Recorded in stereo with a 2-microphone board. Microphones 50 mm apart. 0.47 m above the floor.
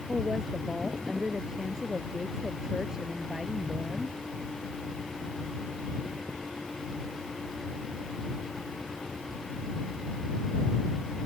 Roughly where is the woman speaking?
Centre.